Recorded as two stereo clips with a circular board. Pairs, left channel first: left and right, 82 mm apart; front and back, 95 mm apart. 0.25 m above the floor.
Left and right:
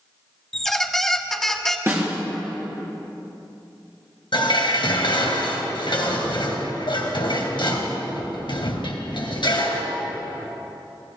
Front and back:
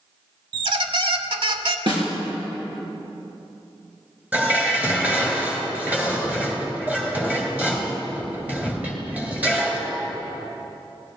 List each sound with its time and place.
0.5 s a squeak: 175° left, 0.8 m
1.9 s a snare drum: 145° right, 3.5 m
4.3 s dishes clattering: 105° left, 2.5 m